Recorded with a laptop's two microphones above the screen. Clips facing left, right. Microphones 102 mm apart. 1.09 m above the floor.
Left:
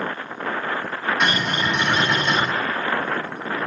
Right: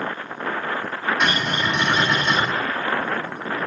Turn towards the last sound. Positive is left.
turn(degrees=-10)  # may be behind; listen again after turning